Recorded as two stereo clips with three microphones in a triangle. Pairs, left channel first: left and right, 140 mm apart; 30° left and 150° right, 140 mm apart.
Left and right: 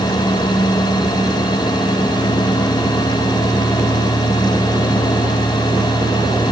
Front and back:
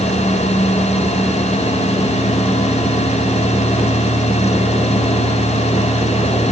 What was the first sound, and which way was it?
Only background noise.